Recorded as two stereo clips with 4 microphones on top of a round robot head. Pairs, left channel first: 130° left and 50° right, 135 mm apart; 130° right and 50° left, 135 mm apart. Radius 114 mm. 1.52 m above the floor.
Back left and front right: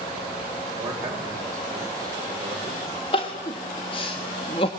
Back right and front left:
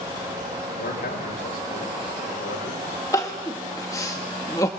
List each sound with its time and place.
0.8 s a man speaking: 120° right, 4.5 m; by 2.9 s 110° right, 3.5 m
3.1 s crying: 170° left, 1.0 m